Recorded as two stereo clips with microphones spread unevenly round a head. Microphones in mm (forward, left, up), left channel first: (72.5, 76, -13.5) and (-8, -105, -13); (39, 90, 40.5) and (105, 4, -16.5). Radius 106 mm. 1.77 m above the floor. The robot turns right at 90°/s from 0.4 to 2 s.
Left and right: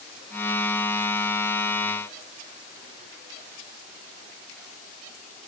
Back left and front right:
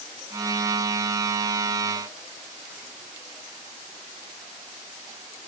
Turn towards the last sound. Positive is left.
No sound to turn to.